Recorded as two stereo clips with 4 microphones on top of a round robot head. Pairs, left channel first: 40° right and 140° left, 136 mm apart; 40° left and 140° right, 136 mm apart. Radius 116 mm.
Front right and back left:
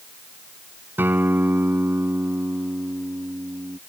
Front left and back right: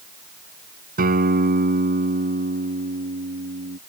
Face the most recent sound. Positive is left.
turn(degrees=-145)